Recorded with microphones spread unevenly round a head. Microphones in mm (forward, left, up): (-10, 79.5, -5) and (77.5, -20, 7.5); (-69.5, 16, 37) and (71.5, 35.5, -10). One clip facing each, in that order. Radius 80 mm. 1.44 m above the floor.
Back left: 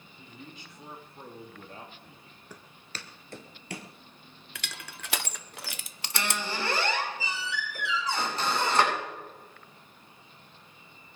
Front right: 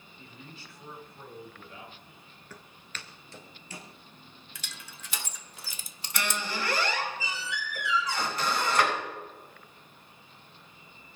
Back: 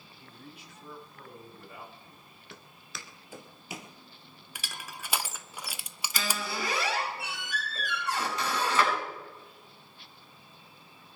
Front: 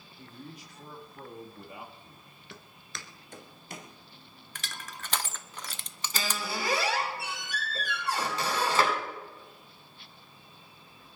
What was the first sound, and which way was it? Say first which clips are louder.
A man speaking: back left 2 dB, front 5 dB; 50° left.